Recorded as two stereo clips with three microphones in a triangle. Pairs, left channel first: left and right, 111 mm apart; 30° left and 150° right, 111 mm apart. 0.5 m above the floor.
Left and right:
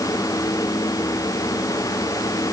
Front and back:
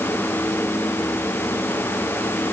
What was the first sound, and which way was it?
Only background noise.